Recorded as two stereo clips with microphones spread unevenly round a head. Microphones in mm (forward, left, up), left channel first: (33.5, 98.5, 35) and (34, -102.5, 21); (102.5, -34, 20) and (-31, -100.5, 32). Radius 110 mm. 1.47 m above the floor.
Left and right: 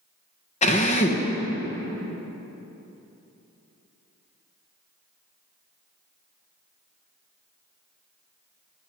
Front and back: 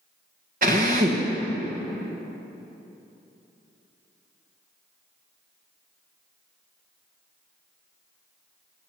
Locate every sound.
0.6 s a drill: 155° left, 1.3 m